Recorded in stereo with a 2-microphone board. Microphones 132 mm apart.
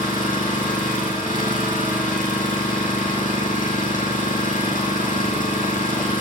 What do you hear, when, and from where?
0.0 s an engine running: 80° left, 6.5 m